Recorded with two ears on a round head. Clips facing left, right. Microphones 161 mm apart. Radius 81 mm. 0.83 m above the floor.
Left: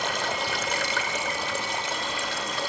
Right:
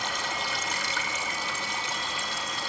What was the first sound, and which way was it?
Running water, 50° left (ahead or behind).